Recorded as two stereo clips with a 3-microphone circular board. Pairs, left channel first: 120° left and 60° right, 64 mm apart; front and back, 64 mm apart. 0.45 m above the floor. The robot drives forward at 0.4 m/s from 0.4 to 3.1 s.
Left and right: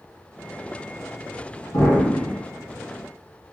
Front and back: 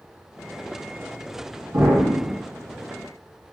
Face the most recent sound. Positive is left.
turn(degrees=160)